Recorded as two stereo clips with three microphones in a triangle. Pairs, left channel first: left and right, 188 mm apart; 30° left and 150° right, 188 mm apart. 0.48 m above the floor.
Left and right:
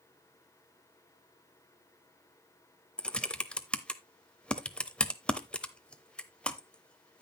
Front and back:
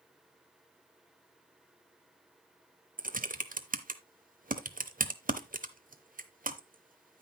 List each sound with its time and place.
3.0 s typing on a keyboard: 175° left, 0.7 m